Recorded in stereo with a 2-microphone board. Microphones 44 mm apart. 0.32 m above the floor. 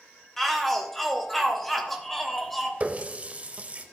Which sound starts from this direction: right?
A running tap, at 2.8 s.